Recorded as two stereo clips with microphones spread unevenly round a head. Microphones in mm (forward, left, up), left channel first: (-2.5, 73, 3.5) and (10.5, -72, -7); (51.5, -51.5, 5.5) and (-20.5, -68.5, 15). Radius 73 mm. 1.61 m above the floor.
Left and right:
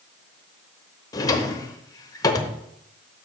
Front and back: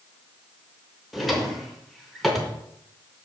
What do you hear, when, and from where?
1.1 s a drawer: 120° left, 0.7 m